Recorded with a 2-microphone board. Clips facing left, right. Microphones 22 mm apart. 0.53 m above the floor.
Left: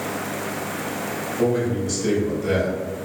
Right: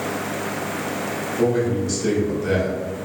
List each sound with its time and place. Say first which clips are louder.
1.4 s a man speaking: right 1 dB; 25° right (ahead or behind), 1.4 m